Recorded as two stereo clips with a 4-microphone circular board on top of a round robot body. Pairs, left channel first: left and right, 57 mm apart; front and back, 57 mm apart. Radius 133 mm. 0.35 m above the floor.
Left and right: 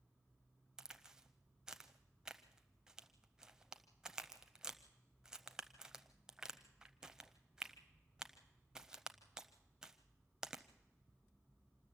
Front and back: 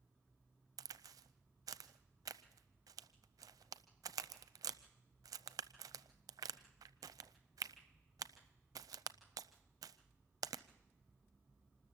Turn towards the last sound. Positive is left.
turn(degrees=-170)